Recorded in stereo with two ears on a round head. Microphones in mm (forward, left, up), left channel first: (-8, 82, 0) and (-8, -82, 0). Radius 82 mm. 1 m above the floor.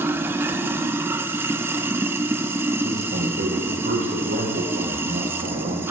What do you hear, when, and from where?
0.0 s running water: 15° right (ahead or behind), 1.1 m
2.8 s a man speaking: 50° right (ahead or behind), 5.5 m